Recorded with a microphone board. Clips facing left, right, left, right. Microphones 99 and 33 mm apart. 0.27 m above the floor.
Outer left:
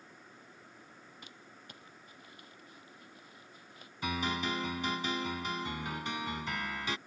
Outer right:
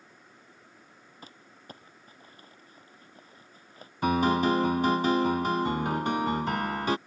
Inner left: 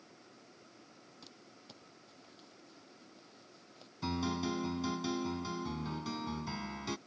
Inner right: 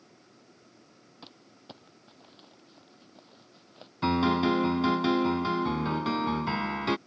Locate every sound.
1.2 s crumpling: 40° right (ahead or behind)
4.0 s a piano: 50° right (ahead or behind)